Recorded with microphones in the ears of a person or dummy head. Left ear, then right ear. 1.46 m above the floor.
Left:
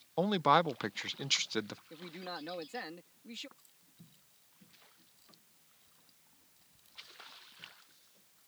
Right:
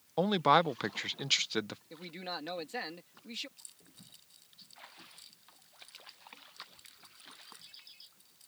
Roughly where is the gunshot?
No gunshot in this recording.